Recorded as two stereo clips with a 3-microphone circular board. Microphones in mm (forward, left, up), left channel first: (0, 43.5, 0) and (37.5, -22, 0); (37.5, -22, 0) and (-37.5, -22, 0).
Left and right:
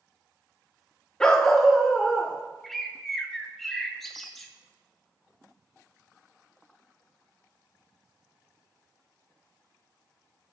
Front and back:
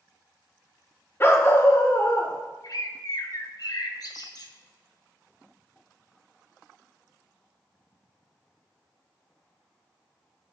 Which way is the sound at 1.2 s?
45° left.